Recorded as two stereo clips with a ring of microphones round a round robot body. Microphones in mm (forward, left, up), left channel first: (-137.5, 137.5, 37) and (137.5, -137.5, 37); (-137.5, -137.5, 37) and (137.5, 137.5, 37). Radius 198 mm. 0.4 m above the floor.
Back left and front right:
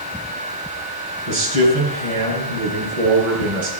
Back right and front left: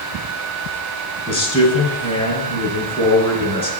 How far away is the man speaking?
About 5.5 m.